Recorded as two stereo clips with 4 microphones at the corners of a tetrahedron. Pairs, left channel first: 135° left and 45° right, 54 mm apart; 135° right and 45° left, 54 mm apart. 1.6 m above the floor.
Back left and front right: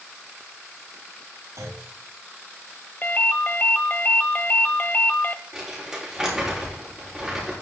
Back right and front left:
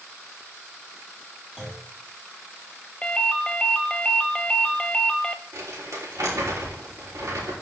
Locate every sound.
1.6 s a clunk: 35° right, 3 m
3.0 s a ringtone: 165° left, 0.6 m
5.5 s crumpling: 30° left, 3 m